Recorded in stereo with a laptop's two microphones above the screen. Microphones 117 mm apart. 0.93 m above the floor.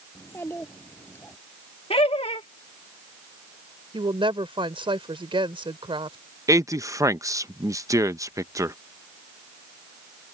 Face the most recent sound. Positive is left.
turn(degrees=-25)  # may be behind; listen again after turning